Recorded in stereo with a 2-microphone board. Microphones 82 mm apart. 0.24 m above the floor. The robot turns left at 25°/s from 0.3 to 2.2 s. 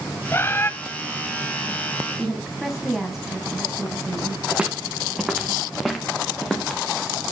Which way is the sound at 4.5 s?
15° right (ahead or behind).